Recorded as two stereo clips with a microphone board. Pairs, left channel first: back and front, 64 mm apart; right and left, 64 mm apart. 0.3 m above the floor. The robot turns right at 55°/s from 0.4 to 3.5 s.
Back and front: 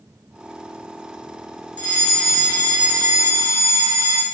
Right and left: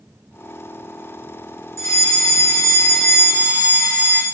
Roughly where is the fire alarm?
Right.